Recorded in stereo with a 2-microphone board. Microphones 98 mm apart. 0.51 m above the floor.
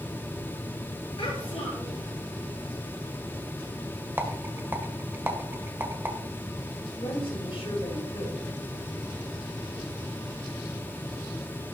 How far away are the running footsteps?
No running footsteps in this recording.